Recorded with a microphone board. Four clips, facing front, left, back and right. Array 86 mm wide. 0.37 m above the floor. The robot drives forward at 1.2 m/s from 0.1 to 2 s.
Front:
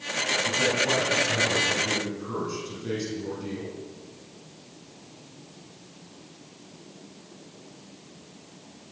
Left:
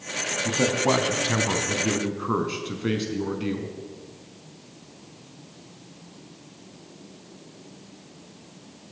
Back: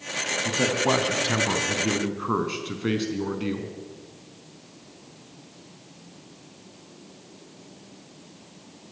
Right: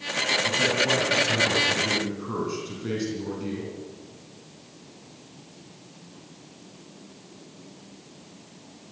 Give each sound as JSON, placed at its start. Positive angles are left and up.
{"t": 0.5, "sound": "a man speaking", "azimuth_deg": 125, "distance_m": 3.0}